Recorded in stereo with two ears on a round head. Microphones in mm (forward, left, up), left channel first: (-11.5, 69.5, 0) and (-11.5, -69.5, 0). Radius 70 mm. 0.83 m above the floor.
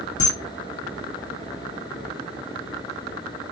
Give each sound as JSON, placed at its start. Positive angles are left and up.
{"t": 0.2, "sound": "a camera shutter", "side_deg": 50, "distance_m": 1.2}